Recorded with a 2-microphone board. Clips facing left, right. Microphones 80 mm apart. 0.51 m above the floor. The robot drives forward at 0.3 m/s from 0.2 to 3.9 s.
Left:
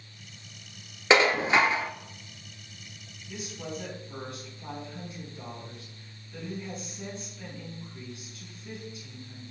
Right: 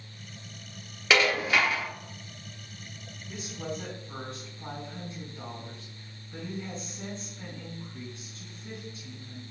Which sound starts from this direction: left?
Dishes clattering, at 1.1 s.